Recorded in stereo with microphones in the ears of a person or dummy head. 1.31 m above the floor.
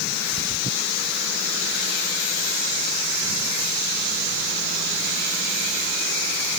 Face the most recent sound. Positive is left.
No sound to turn to.